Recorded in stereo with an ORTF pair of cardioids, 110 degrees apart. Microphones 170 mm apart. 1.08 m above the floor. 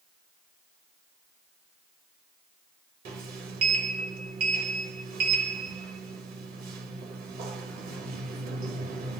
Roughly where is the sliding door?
Ahead right.